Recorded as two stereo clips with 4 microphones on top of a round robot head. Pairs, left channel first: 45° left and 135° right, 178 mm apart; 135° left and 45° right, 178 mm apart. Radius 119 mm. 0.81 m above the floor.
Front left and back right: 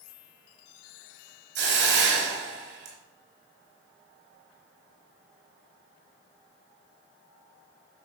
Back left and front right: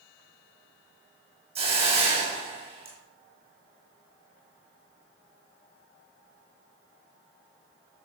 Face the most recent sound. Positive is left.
turn(degrees=-105)